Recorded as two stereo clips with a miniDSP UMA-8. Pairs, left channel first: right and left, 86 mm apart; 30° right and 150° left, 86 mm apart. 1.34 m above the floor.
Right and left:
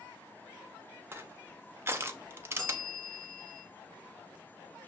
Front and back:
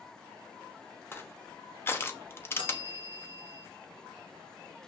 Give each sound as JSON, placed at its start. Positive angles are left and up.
{"t": 1.1, "sound": "crushing", "azimuth_deg": 30, "distance_m": 0.9}
{"t": 2.6, "sound": "a bell", "azimuth_deg": -5, "distance_m": 5.5}